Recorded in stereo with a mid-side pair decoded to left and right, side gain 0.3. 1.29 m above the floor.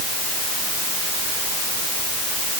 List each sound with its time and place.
Only background noise.